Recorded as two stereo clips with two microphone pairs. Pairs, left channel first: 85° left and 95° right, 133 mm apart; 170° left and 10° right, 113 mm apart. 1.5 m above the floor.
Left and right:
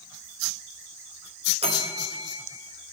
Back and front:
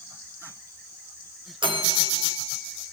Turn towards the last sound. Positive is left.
turn(degrees=-55)